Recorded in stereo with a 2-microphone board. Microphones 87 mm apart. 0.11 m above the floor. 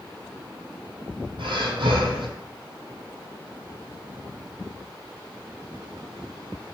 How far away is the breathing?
About 0.7 m.